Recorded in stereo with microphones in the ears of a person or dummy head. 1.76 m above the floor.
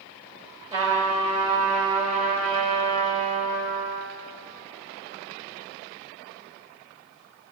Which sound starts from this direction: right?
A trumpet, at 0.7 s.